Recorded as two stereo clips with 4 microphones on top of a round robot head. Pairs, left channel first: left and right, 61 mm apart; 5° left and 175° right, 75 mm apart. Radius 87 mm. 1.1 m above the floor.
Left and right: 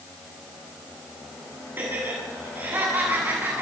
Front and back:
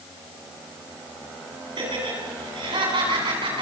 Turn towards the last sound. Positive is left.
turn(degrees=-155)